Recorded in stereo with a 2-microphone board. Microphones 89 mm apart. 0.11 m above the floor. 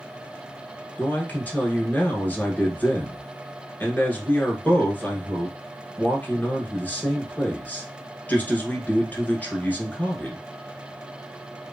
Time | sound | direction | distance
1.0 | a man speaking | 20° left (ahead or behind) | 1.1 m